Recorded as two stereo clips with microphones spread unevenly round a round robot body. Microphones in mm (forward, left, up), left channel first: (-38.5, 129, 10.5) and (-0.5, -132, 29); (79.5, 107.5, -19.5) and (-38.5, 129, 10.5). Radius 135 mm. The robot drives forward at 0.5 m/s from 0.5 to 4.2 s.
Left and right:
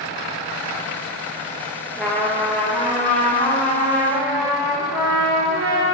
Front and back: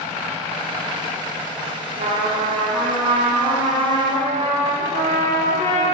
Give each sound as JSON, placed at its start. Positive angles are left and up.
{"t": 1.9, "sound": "a trumpet", "azimuth_deg": -170, "distance_m": 0.8}